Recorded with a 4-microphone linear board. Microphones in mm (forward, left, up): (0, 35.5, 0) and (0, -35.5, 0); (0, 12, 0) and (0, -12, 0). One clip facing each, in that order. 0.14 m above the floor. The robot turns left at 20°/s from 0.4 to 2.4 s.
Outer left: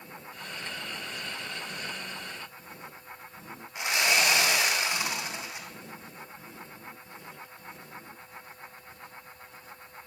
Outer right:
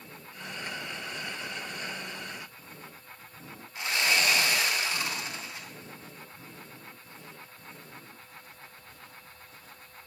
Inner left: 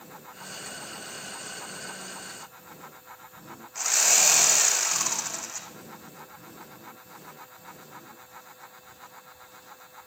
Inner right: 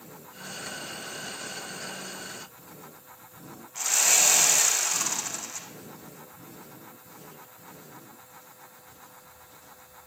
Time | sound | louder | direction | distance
3.8 | sawing | outer left 1 dB, inner left 1 dB | 20° left (ahead or behind) | 2.5 m